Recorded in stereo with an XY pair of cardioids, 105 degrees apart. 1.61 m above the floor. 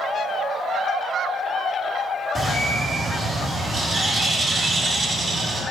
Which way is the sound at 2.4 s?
25° right.